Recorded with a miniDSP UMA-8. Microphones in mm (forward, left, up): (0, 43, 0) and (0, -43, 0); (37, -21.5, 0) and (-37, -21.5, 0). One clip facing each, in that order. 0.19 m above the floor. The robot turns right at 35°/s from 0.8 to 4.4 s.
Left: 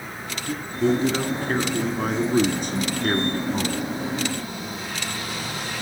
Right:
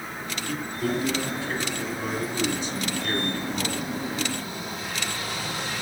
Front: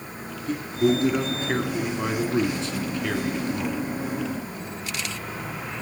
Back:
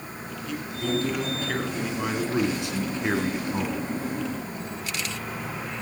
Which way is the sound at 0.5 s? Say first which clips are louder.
Left 6 dB, front 7 dB; 40° left.